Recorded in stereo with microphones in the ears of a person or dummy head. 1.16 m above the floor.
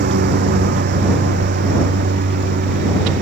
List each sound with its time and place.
0.0 s a lawn mower: 50° right (ahead or behind)